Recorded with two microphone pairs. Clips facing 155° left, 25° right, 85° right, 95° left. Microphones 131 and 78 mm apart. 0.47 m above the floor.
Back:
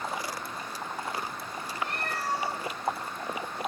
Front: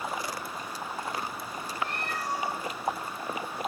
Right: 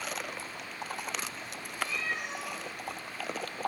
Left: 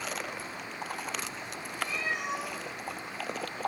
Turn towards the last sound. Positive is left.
turn(degrees=95)